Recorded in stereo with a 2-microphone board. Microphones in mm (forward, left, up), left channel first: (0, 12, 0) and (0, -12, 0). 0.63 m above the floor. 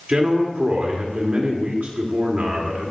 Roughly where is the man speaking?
Right.